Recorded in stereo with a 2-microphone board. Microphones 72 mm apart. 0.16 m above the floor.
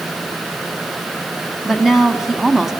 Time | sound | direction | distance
1.6 | a woman speaking | 5° right (ahead or behind) | 1.7 m